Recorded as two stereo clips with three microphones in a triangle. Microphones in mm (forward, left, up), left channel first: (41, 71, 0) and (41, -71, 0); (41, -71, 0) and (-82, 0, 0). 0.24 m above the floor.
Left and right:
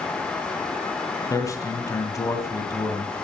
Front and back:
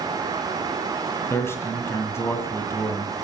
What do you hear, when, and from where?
1.3 s a man speaking: 35° left, 2.0 m